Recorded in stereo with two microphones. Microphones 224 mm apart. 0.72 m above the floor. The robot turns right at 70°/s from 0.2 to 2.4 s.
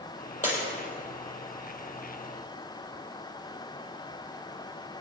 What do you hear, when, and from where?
0.4 s breaking glass: 35° left (ahead or behind), 6 m; by 0.6 s 25° left (ahead or behind), 6 m